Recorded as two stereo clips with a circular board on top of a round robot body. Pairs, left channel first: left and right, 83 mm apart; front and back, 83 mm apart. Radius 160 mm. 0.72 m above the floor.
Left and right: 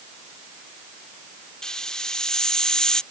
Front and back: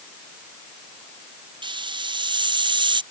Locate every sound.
1.6 s a hiss: 170° left